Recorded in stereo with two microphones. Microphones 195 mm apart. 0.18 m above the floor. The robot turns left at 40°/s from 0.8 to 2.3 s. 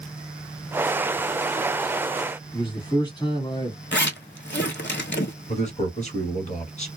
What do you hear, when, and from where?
2.5 s a man speaking: 25° left (ahead or behind), 1.3 m
3.9 s a zipper: 65° left (ahead or behind), 0.6 m
5.5 s a man speaking: 40° left (ahead or behind), 1.6 m